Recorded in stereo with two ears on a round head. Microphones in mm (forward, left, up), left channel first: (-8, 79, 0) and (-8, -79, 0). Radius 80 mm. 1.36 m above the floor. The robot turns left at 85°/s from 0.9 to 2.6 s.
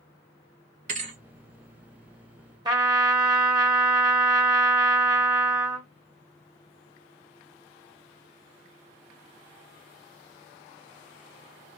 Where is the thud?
50° right (ahead or behind), 1.0 m; by 1.2 s 40° right (ahead or behind), 1.0 m.